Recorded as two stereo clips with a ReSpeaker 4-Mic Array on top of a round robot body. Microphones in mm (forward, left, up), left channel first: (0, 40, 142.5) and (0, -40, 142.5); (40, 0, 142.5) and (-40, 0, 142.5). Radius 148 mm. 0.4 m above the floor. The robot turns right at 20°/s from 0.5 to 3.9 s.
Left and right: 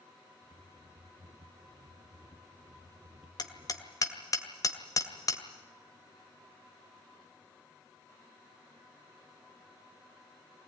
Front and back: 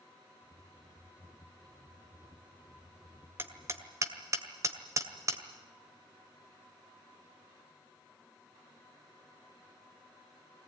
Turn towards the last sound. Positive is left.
turn(degrees=130)